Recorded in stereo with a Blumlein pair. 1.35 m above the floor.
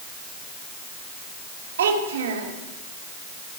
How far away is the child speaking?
About 3 m.